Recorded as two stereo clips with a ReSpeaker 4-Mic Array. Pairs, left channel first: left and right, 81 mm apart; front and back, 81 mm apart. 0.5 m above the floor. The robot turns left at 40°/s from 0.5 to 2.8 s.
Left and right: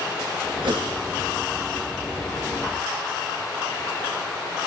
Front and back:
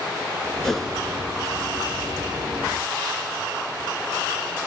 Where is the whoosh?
85° right, 2.5 m; by 0.9 s 95° right, 2.5 m.